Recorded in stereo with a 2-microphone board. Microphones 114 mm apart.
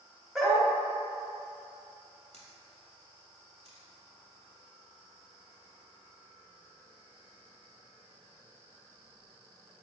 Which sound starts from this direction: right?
A camera shutter, at 2.3 s.